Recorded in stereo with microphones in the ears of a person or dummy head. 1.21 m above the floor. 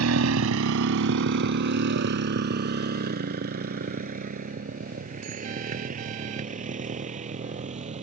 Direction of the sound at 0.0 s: 85° right.